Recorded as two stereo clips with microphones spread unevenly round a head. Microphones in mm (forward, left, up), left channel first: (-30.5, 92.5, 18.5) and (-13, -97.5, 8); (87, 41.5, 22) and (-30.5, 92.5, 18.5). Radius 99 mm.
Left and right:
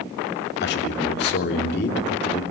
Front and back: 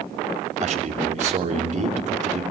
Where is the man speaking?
130° left, 3 m.